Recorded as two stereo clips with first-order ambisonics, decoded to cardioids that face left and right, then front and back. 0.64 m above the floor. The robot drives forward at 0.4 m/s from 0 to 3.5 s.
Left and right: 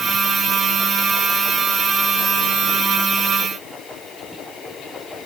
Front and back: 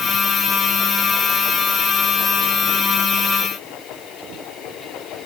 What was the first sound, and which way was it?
Only background noise.